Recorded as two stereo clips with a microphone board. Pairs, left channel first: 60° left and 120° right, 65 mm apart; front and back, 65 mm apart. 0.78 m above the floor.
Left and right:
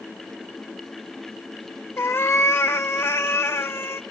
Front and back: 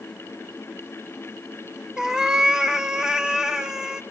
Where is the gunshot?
I don't hear a gunshot.